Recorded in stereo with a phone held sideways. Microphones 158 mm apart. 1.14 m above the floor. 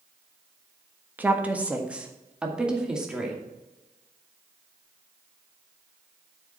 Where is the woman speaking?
10° right (ahead or behind), 1.4 m; by 3.4 s 5° right (ahead or behind), 2.5 m.